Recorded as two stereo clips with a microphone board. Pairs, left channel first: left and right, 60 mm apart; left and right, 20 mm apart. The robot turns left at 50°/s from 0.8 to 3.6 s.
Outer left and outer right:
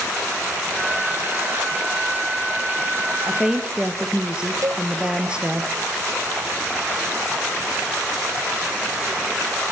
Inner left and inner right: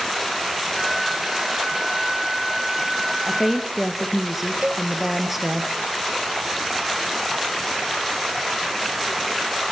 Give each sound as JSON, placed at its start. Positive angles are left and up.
{"t": 3.3, "sound": "a woman speaking", "side_deg": -5, "distance_m": 1.9}
{"t": 4.6, "sound": "a cowbell", "side_deg": -65, "distance_m": 1.0}